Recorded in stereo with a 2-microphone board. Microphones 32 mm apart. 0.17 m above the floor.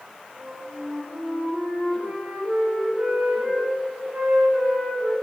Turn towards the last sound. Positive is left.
turn(degrees=-50)  # may be behind; listen again after turning